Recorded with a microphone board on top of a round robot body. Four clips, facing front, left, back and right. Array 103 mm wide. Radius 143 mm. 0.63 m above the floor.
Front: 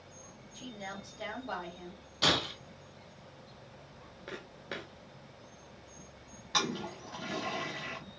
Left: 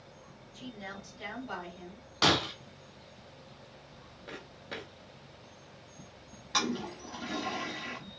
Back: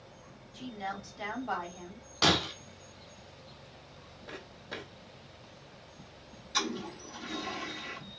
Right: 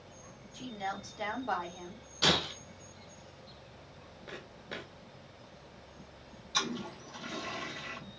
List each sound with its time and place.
0.5 s a woman speaking: 120° right, 2 m
2.2 s breaking glass: 125° left, 0.6 m
4.3 s footsteps: straight ahead, 0.6 m
6.5 s a toilet flushing: 45° left, 0.7 m